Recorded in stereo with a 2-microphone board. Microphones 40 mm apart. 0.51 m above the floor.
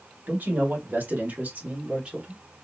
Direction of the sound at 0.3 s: 55° right (ahead or behind).